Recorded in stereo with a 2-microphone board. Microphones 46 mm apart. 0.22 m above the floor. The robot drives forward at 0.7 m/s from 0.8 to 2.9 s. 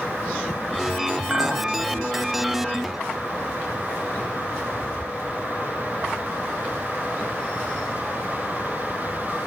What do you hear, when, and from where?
1.3 s a clink: 30° right (ahead or behind), 0.9 m